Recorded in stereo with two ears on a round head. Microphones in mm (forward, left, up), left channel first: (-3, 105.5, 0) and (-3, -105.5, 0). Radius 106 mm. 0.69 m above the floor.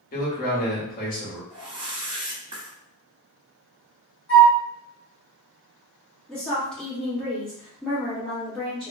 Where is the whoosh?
25° right (ahead or behind), 1.1 m.